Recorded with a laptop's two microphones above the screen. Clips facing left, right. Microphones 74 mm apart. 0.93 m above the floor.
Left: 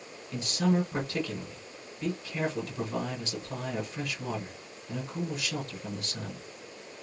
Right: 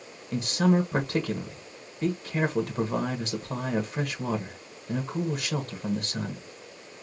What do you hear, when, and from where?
0.3 s a man speaking: 60° right (ahead or behind), 1.0 m